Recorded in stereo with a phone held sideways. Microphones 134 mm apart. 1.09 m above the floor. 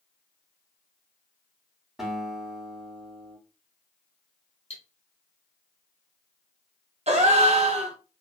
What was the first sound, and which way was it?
A guitar, 5° right (ahead or behind).